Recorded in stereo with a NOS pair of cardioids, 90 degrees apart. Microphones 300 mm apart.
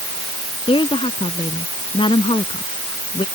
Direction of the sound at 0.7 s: 15° left.